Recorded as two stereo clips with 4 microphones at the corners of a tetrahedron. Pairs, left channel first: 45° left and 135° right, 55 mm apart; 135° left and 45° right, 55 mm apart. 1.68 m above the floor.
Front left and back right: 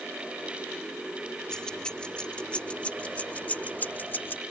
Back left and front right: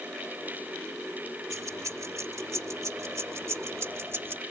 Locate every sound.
1.5 s keys jangling: 30° right; by 4.4 s straight ahead